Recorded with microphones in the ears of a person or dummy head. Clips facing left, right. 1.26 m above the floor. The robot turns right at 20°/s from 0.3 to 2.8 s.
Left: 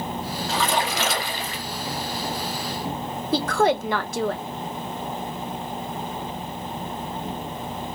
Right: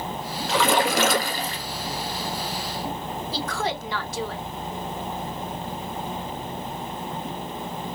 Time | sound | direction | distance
0.5 | a splash | 55° right (ahead or behind) | 1.5 m
3.3 | a woman speaking | 55° left (ahead or behind) | 1.1 m